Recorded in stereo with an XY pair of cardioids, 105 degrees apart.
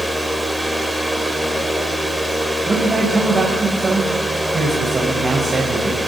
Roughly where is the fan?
Ahead.